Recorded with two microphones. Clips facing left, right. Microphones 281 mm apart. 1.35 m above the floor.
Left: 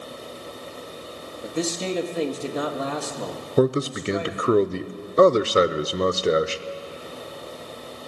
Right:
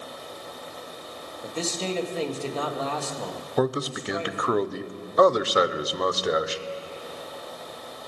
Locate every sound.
1.4 s a man speaking: 15° left (ahead or behind), 1.5 m
3.6 s a man speaking: 30° left (ahead or behind), 0.5 m